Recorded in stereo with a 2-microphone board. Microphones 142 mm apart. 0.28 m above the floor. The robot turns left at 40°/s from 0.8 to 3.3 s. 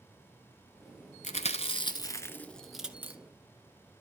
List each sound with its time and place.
1.2 s chewing: 60° left (ahead or behind), 1.1 m; by 3.2 s 20° right (ahead or behind), 1.1 m